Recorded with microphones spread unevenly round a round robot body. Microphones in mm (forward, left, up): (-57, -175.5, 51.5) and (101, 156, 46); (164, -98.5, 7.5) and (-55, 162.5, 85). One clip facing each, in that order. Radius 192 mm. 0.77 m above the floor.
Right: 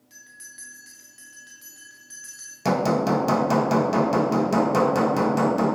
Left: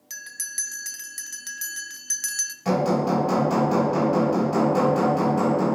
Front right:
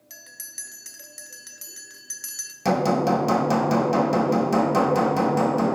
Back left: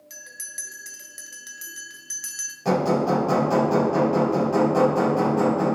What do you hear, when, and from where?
0.1 s a bell: 40° left, 0.6 m
2.6 s hammering: 95° right, 1.4 m